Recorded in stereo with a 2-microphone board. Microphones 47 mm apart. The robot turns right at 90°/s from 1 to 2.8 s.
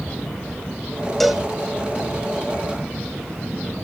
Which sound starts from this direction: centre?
A cowbell, at 1.2 s.